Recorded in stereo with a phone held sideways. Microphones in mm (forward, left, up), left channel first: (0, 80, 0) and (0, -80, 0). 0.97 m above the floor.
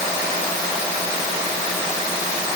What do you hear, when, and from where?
Only background noise.